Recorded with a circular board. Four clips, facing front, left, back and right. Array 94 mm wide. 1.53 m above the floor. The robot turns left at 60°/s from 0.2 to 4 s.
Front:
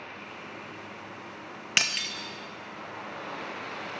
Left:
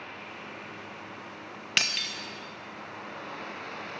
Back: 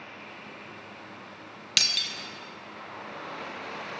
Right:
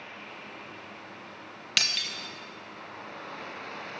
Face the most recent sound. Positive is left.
turn(degrees=-110)